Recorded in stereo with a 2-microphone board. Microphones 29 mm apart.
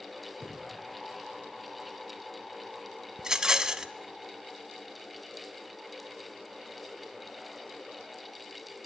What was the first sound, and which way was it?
Breathing, 25° left (ahead or behind).